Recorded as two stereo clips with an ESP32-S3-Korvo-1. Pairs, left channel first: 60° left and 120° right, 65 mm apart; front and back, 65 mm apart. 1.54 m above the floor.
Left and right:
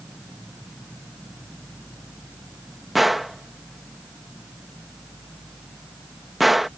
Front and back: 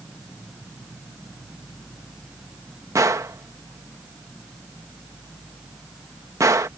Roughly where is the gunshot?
Behind left.